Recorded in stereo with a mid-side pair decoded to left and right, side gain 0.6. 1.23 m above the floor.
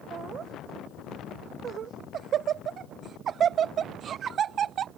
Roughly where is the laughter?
Ahead right.